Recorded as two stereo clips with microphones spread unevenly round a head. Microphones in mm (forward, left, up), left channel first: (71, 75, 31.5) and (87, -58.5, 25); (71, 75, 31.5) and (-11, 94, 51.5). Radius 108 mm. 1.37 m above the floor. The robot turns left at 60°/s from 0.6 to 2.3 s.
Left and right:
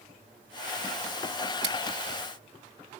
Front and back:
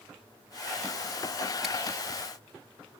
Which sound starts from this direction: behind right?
Scissors, at 1.6 s.